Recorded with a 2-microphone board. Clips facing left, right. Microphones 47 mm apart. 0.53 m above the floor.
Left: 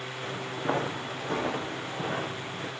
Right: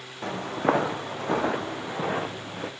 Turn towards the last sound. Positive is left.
turn(degrees=-65)  # may be behind; listen again after turning